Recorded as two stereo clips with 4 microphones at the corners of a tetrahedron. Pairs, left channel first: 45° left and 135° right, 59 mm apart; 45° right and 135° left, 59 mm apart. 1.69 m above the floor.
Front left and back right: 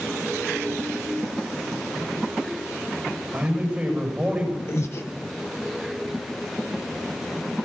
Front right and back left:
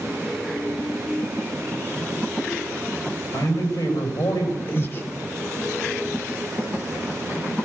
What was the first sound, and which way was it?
A man speaking, 65° right.